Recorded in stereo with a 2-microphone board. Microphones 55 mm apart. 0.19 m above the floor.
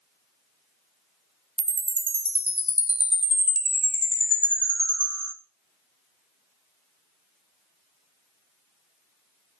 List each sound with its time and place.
1.6 s a chime: 35° right (ahead or behind), 0.6 m